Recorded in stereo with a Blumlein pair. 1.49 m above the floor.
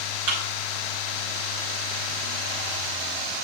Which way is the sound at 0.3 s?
50° right.